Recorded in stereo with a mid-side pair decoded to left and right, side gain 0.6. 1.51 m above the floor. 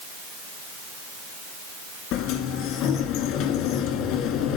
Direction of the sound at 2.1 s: 70° left.